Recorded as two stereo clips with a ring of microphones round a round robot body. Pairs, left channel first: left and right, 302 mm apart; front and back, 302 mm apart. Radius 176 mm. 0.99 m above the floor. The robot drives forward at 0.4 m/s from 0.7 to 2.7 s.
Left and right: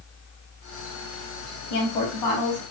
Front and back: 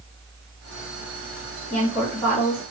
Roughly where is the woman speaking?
Left.